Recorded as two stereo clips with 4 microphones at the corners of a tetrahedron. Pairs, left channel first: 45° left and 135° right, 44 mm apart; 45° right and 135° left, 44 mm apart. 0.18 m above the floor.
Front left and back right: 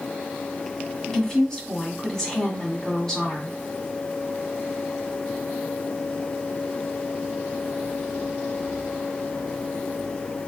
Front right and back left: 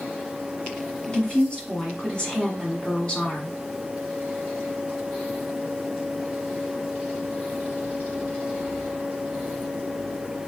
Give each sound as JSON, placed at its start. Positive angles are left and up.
{"t": 1.1, "sound": "a woman speaking", "azimuth_deg": -15, "distance_m": 1.5}